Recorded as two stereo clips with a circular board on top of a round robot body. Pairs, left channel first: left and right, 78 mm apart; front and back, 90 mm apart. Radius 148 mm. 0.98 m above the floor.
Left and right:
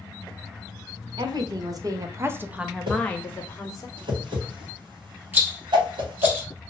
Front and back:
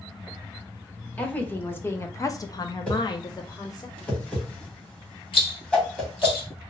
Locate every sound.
1.2 s a woman speaking: 75° right, 1.1 m; by 3.9 s 50° left, 0.9 m
2.9 s a whoosh: 80° right, 1.2 m
5.3 s a rattle: 25° right, 1.1 m